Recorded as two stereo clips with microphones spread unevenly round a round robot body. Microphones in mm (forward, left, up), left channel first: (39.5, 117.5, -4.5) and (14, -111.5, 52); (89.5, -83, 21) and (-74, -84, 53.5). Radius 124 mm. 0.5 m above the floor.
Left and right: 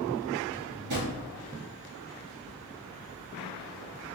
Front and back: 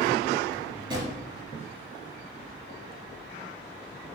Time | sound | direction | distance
0.5 | a drawer | 120° right | 3 m